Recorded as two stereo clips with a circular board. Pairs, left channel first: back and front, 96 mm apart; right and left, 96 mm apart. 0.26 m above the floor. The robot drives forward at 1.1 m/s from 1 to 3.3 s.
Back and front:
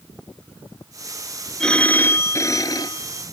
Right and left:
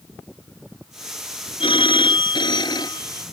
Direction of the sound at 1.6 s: 95° right.